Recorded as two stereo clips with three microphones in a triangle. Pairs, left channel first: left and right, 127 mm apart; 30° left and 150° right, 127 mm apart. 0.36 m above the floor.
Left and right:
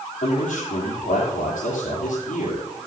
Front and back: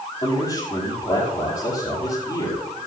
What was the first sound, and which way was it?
A man speaking, 80° left.